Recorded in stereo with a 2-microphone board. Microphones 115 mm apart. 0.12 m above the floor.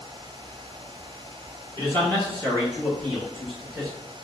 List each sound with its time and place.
1.8 s a man speaking: 25° left (ahead or behind), 1.6 m; by 3.9 s 5° right (ahead or behind), 1.6 m